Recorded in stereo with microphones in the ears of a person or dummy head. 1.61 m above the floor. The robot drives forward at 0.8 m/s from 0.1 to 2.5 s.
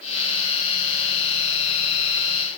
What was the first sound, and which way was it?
Only background noise.